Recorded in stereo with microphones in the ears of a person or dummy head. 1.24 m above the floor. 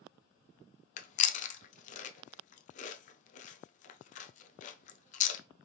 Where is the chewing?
40° left (ahead or behind), 0.5 m.